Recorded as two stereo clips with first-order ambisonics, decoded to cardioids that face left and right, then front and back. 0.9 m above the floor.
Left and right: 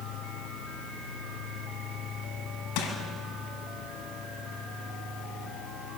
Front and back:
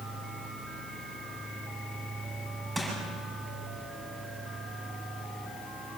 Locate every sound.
2.8 s crushing: 100° left, 7 m